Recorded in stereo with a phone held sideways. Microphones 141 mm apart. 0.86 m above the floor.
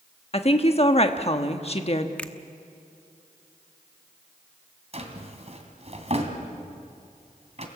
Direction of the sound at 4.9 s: 50° right (ahead or behind).